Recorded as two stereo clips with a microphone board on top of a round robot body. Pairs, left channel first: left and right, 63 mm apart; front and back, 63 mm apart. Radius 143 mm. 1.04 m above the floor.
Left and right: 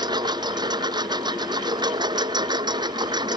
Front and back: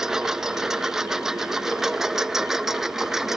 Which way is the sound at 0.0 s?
95° right.